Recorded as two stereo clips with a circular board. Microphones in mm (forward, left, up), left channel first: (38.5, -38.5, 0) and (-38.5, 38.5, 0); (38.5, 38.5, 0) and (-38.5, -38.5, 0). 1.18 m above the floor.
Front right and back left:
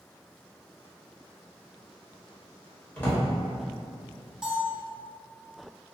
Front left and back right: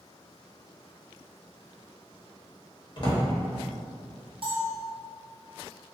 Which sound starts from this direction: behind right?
A bell, at 4.4 s.